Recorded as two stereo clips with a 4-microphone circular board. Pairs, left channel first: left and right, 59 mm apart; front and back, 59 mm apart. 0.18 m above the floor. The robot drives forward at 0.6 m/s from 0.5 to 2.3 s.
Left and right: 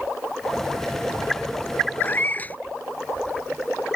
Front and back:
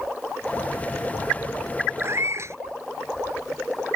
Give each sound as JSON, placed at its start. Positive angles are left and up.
{"t": 2.0, "sound": "a cat meowing", "azimuth_deg": 145}